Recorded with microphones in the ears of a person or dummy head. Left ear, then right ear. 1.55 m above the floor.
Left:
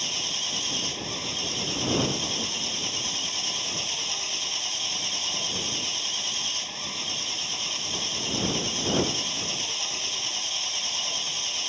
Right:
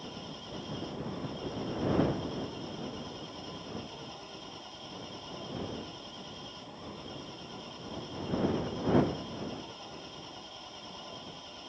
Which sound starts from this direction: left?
An engine running, at 0.0 s.